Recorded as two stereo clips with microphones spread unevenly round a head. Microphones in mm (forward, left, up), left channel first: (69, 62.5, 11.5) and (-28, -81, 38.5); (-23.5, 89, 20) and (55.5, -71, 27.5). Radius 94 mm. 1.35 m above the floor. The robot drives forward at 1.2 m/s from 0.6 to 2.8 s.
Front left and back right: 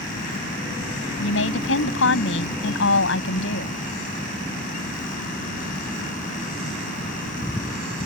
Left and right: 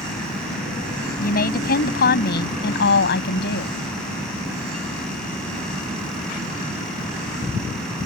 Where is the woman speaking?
75° left; by 3.7 s 85° left.